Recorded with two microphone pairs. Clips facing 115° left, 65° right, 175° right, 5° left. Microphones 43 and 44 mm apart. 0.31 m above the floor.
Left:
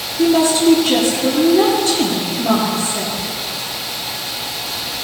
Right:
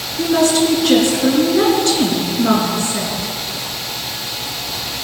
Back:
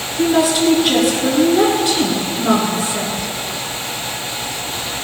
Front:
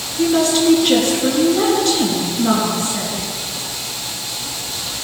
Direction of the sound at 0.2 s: 95° right.